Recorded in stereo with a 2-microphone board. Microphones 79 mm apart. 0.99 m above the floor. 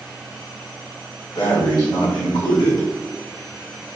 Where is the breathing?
70° left (ahead or behind), 1.9 m.